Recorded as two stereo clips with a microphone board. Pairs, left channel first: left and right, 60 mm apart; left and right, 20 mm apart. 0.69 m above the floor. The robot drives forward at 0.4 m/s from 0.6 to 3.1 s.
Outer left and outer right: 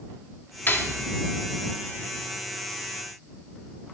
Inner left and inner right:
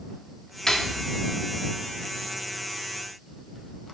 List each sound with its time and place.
0.7 s cutlery clinking: 35° left (ahead or behind), 0.8 m; by 1.1 s 30° left (ahead or behind), 0.9 m